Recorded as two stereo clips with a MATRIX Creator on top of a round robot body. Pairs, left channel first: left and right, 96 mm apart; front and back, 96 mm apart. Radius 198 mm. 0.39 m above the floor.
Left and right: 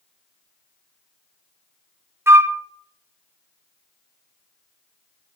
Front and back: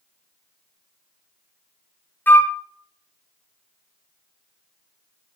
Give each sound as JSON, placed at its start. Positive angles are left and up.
{"t": 2.3, "sound": "a flute", "azimuth_deg": -50, "distance_m": 0.7}